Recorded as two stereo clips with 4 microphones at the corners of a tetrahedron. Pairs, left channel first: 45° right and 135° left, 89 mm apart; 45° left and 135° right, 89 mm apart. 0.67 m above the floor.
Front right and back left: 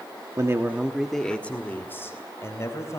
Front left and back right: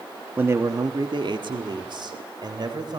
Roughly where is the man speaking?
Behind.